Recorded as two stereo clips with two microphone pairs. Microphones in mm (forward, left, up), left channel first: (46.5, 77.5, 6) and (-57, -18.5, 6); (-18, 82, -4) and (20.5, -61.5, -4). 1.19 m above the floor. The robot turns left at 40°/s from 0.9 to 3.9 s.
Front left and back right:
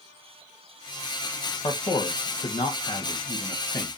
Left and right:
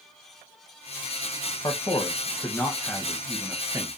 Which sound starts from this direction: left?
A man speaking, at 1.6 s.